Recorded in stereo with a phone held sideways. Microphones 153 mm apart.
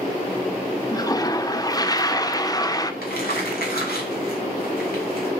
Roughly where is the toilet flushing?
Left.